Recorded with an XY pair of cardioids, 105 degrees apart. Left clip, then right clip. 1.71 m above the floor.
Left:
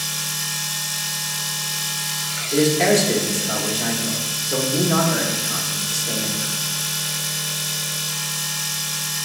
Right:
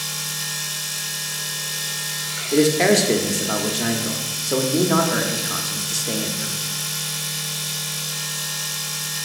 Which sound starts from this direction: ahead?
A machine running, at 0.0 s.